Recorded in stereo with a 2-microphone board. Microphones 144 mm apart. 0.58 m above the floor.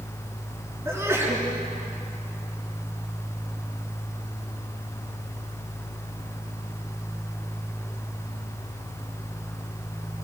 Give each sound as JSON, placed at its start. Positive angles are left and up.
{"t": 0.8, "sound": "a sneeze", "side_deg": -15, "distance_m": 6.0}